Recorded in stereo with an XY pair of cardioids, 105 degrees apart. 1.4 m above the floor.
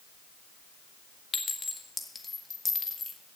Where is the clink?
30° left, 1.8 m.